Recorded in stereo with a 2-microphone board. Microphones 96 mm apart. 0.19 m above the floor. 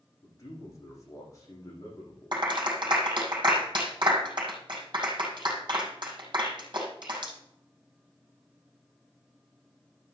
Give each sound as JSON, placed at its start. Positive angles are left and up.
{"t": 0.2, "sound": "a man speaking", "side_deg": 35, "distance_m": 8.5}
{"t": 2.3, "sound": "a clap", "side_deg": -55, "distance_m": 5.5}